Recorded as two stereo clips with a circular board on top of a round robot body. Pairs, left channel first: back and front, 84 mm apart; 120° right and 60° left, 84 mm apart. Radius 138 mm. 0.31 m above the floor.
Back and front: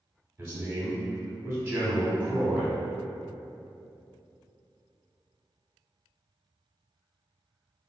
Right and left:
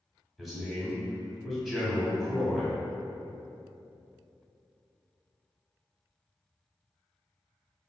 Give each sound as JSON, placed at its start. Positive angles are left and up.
{"t": 0.4, "sound": "a man speaking", "azimuth_deg": -35, "distance_m": 1.2}